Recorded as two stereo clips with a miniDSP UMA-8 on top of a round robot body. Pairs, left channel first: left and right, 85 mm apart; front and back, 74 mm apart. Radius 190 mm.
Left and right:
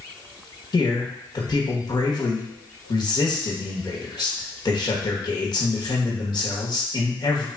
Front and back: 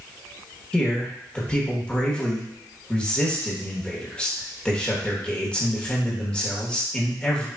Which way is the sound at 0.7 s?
70° left.